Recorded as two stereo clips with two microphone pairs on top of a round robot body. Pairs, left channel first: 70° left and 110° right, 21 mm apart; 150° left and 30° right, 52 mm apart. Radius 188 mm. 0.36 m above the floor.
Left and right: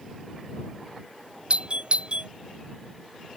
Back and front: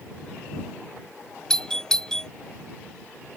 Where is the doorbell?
135° right.